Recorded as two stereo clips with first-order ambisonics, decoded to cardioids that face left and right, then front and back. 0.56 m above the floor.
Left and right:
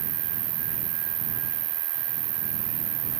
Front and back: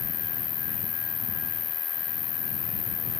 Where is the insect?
65° right.